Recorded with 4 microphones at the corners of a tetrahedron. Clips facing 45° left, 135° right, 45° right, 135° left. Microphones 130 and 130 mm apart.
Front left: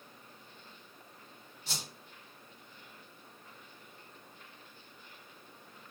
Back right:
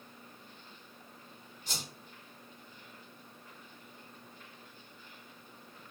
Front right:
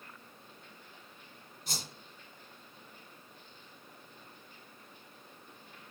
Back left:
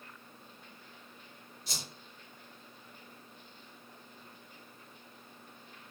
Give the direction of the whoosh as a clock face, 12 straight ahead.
1 o'clock.